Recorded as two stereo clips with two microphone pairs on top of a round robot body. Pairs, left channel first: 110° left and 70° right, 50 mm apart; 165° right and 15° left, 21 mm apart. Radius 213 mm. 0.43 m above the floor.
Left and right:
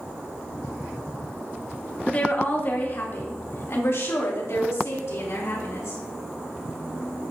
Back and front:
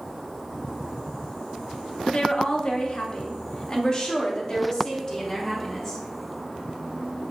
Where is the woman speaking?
175° left, 1.4 m; by 6.0 s 125° left, 3 m.